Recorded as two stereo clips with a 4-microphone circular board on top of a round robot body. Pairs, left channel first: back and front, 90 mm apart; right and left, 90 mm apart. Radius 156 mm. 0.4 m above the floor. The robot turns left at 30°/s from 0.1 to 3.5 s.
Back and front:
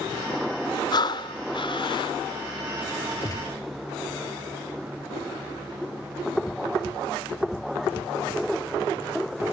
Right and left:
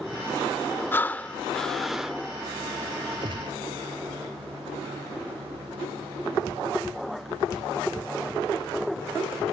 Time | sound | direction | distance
0.9 | breathing | 150° right | ?
3.2 | a gunshot | 130° left | ?